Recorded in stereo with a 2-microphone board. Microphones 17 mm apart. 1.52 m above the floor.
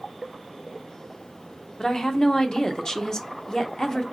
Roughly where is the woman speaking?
Left.